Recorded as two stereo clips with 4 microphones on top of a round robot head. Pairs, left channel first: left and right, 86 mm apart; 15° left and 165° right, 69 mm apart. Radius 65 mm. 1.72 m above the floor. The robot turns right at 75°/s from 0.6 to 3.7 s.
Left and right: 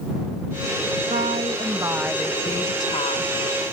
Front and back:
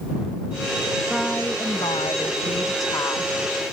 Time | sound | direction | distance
1.1 | a woman speaking | 85° right | ?